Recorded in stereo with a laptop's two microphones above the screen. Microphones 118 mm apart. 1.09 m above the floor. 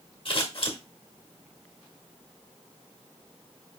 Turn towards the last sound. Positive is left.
turn(degrees=50)  # may be behind; listen again after turning